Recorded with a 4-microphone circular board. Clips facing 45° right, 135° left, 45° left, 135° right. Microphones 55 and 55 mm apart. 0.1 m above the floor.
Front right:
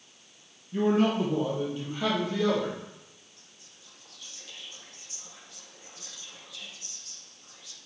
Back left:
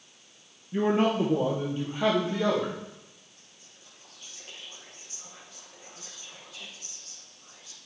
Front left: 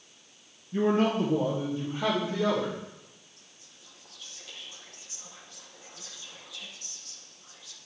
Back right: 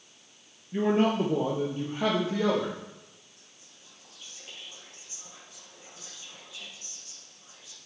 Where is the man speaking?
175° left, 1.8 m; by 2.8 s 155° right, 3.5 m.